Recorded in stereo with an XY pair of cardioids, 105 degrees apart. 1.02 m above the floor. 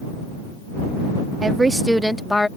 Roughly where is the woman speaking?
Ahead right.